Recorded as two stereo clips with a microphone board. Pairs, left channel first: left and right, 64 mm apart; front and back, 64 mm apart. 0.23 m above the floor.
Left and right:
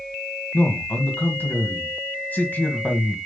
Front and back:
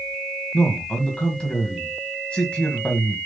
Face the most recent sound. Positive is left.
turn(degrees=65)